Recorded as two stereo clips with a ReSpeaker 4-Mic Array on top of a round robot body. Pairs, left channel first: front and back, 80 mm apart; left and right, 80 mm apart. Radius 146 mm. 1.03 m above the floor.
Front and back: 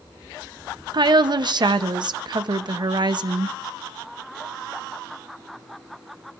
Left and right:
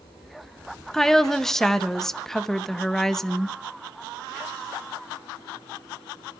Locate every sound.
0.9 s a woman speaking: 175° left, 1.0 m